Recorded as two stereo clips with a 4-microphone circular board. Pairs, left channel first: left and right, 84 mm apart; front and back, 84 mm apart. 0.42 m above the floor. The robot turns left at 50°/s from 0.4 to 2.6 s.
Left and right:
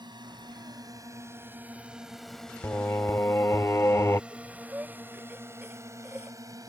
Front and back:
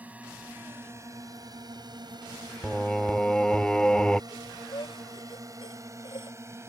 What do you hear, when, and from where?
0.0 s a drone: 110° right; by 6.7 s 130° right
2.6 s singing: 75° left
4.3 s breathing: 20° right